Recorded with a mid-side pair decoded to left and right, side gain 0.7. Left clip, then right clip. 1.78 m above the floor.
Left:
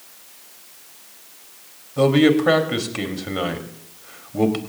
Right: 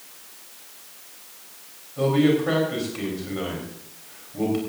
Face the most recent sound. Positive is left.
turn(degrees=45)